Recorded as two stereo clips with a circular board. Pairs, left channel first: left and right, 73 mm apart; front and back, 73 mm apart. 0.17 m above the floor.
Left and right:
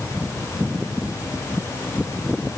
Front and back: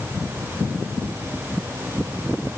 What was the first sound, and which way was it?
Only background noise.